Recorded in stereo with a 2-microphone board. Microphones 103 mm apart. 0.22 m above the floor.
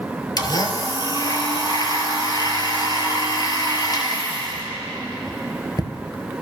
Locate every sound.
0.4 s a blender: 40° left (ahead or behind), 1.2 m